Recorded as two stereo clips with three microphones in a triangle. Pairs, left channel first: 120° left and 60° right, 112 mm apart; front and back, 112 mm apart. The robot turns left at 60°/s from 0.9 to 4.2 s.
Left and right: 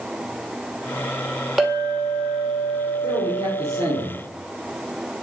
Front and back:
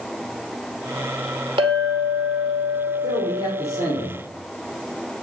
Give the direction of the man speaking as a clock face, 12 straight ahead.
1 o'clock.